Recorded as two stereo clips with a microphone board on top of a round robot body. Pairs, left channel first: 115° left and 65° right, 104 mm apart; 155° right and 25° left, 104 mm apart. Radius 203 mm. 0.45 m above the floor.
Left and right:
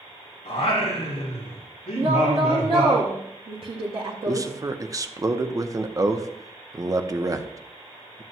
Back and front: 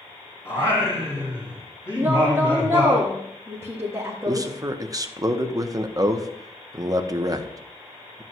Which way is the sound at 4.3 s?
20° right.